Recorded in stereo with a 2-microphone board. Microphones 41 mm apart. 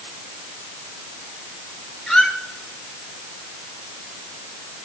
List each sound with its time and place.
2.1 s a squeak: 15° left (ahead or behind), 1.0 m